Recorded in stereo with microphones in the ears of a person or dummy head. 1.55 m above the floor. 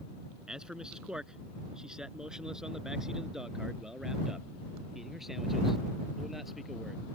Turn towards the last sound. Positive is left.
turn(degrees=0)  # may be behind; listen again after turning